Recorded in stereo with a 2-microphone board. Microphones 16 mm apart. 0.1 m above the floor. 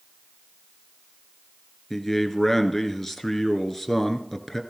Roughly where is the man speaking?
Centre.